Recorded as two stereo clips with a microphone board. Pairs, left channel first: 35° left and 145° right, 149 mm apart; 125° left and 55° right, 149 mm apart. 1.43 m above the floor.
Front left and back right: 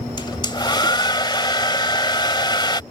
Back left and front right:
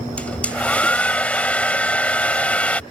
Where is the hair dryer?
50° left.